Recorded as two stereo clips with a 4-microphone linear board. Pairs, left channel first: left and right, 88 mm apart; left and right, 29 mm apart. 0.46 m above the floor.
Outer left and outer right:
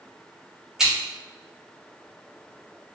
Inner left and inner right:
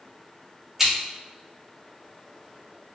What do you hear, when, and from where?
0.8 s scissors: 5° right (ahead or behind), 1.5 m